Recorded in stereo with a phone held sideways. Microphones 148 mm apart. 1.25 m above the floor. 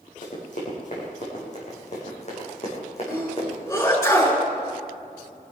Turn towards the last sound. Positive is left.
turn(degrees=25)  # may be behind; listen again after turning